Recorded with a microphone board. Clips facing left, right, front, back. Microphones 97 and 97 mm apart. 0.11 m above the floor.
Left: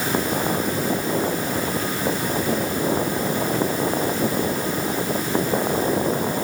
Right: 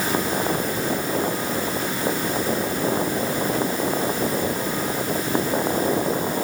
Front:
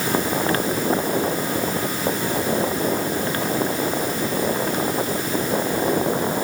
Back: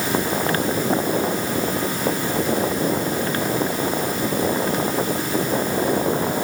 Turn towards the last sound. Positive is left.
No sound to turn to.